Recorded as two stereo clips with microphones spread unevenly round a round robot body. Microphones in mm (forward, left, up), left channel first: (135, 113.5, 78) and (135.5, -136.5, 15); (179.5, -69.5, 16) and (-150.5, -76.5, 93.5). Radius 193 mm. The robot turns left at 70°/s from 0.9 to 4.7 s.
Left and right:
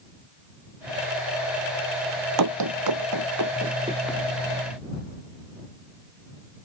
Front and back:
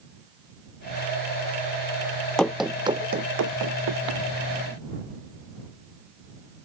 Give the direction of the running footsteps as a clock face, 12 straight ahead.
3 o'clock.